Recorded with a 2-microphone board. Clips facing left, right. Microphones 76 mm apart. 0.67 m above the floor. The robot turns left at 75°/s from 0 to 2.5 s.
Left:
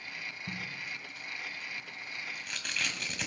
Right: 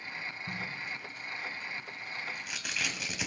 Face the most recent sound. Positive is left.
turn(degrees=-5)  # may be behind; listen again after turning